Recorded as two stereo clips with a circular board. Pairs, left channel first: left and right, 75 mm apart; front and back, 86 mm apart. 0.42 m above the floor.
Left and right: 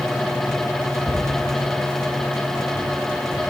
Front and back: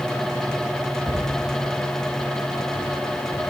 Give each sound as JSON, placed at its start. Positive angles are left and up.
{"t": 1.1, "sound": "a cupboard door", "azimuth_deg": 175, "distance_m": 5.0}